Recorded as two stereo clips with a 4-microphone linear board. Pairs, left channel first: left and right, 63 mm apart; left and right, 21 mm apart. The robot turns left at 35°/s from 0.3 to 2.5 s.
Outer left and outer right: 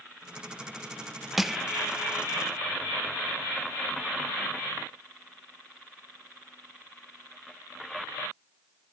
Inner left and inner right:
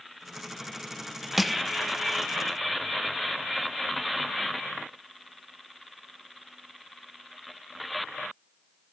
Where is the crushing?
5° right (ahead or behind), 0.6 m; by 1.6 s 10° right (ahead or behind), 0.6 m.